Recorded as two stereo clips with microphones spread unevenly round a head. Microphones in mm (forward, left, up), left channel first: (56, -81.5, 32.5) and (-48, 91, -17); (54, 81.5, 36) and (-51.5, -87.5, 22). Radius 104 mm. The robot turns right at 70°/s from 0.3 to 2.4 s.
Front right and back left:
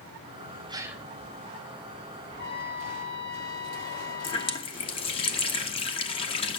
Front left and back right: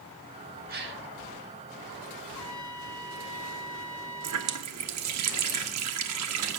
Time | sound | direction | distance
0.7 | a gasp | 170° right | 1.3 m
2.3 | a trumpet | 30° right | 9.5 m
4.2 | a running tap | 115° right | 1.3 m